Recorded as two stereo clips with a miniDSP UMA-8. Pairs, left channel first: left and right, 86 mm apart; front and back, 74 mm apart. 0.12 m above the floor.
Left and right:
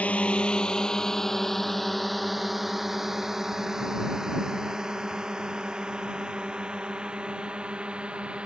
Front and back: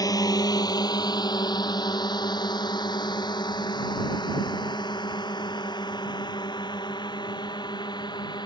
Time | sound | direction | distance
0.0 | a drone | 20° left | ?